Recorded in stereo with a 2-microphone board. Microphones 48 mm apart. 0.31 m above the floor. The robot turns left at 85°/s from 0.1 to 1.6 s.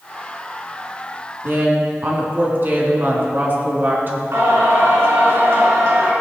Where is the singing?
65° right (ahead or behind), 4 m.